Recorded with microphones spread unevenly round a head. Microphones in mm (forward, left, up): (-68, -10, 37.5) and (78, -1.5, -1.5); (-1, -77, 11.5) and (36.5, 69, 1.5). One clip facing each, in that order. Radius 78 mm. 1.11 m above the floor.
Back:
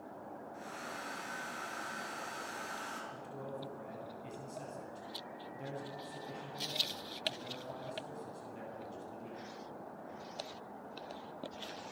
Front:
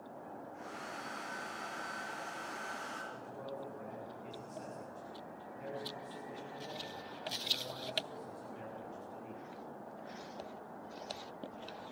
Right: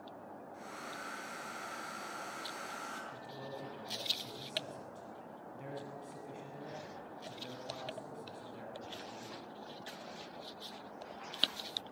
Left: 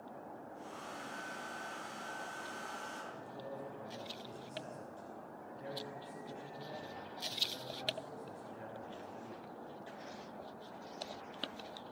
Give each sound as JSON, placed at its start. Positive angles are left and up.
{"t": 0.5, "sound": "a hair dryer", "azimuth_deg": -130, "distance_m": 8.0}
{"t": 3.1, "sound": "a man speaking", "azimuth_deg": -125, "distance_m": 9.5}